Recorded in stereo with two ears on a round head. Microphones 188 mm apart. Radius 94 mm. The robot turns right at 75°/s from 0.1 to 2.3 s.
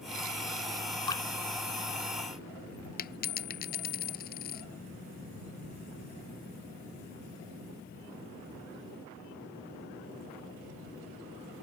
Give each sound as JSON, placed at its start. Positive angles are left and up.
{"t": 1.1, "sound": "dripping", "side_deg": 20}
{"t": 3.0, "sound": "a dropped coin", "side_deg": 45}